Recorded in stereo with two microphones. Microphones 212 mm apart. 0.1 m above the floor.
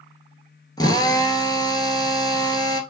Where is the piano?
No piano in this recording.